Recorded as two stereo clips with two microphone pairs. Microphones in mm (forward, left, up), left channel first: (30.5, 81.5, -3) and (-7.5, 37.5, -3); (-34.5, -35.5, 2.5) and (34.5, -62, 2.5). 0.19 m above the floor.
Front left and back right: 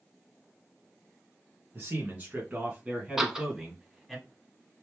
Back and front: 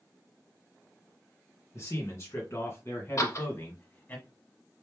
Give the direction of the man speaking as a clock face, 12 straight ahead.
6 o'clock.